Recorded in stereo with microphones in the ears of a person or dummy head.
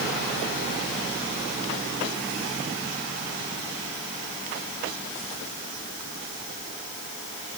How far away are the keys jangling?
I don't hear keys jangling.